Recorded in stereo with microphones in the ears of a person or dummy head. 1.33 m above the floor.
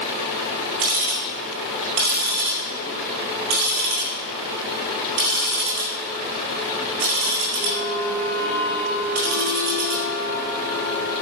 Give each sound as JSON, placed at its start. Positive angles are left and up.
{"t": 0.8, "sound": "ticking", "side_deg": -80, "distance_m": 4.5}